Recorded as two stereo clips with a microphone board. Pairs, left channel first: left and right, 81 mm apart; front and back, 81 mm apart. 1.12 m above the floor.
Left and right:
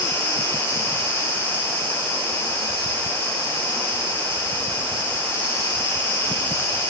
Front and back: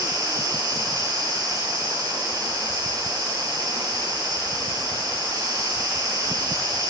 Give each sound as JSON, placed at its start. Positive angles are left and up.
{"t": 0.0, "sound": "an insect", "azimuth_deg": 150, "distance_m": 6.0}